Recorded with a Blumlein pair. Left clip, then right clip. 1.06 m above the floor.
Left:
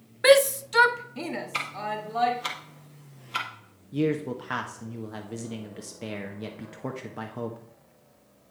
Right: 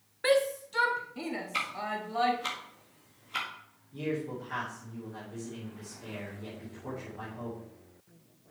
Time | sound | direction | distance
0.2 | a shout | 65° left | 0.5 m
1.5 | ticking | 15° left | 2.0 m
3.9 | a man speaking | 55° left | 1.2 m